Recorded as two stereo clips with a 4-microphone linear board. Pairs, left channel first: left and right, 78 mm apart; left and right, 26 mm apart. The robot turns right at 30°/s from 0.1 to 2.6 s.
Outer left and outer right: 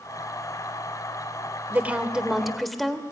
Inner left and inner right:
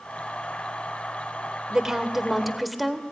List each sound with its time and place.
1.7 s a woman speaking: 25° right (ahead or behind), 2.0 m; by 3.0 s centre (ahead or behind), 2.0 m